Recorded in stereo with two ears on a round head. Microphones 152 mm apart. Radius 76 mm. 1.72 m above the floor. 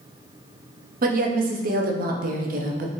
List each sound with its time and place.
1.0 s a woman speaking: 50° right (ahead or behind), 0.6 m